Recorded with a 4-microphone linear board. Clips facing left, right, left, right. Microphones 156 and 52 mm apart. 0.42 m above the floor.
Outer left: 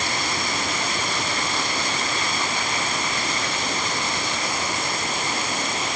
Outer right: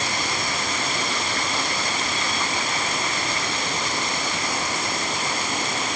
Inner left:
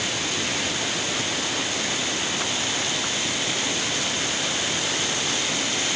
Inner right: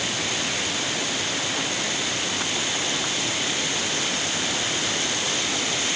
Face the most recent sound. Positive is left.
No sound to turn to.